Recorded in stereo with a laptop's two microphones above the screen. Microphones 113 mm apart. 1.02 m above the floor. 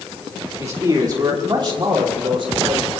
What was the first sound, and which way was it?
A man speaking, 30° right (ahead or behind).